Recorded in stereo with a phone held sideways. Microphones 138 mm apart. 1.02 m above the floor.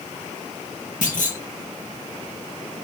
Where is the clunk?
85° left, 0.9 m.